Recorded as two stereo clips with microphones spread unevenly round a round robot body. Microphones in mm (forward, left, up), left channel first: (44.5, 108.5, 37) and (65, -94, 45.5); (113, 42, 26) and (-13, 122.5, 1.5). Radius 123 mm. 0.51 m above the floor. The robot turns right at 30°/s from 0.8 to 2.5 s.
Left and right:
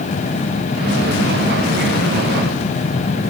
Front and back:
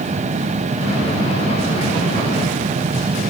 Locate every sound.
Only background noise.